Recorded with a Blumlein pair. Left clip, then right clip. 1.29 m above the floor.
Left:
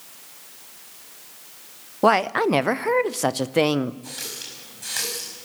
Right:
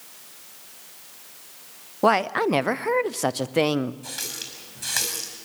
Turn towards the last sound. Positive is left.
turn(degrees=-15)